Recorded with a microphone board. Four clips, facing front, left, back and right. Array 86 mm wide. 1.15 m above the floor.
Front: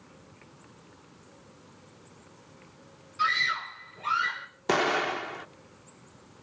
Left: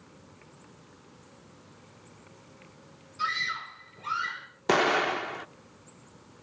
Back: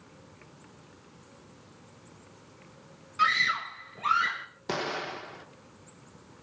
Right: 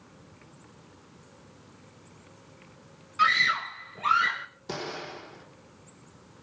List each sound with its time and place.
3.2 s a scream: 115° right, 1.6 m
4.7 s an explosion: 65° left, 0.8 m